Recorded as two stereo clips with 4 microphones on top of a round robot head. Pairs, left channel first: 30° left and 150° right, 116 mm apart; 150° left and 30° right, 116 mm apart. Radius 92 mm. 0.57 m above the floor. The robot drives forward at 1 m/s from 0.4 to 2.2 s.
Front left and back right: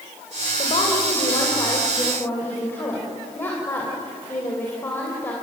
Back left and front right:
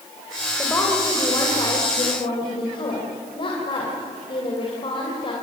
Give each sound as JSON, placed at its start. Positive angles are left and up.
{"t": 0.6, "sound": "a woman speaking", "azimuth_deg": 75, "distance_m": 3.0}